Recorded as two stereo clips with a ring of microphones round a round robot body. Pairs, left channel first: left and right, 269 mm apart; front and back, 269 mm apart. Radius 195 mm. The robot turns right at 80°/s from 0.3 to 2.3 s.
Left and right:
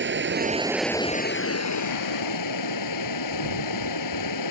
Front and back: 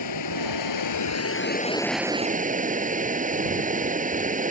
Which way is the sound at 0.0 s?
40° right.